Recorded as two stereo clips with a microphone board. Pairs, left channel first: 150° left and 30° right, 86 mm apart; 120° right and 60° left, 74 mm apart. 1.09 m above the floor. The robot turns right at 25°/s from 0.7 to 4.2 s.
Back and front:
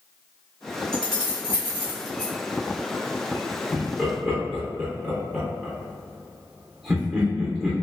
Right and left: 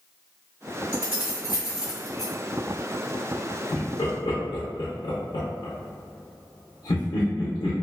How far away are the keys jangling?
About 1.5 m.